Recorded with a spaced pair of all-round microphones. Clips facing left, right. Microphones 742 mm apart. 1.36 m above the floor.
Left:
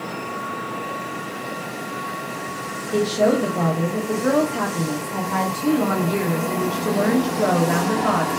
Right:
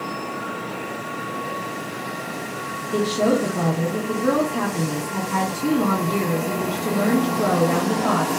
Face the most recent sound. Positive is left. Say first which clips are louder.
# left 1 dB
turn(degrees=10)  # may be behind; listen again after turning